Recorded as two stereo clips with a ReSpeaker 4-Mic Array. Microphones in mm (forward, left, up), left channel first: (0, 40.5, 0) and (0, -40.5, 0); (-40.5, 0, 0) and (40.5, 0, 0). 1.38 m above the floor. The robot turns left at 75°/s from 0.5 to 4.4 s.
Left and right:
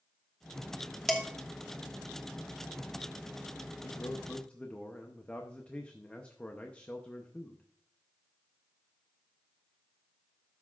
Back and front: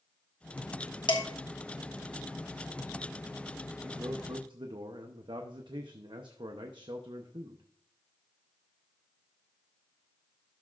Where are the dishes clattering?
175° left, 1.2 m; by 1.2 s 165° left, 1.2 m.